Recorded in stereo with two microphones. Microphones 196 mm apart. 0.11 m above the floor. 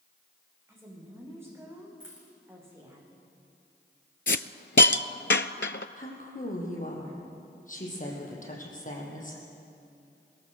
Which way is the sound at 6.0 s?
40° left (ahead or behind).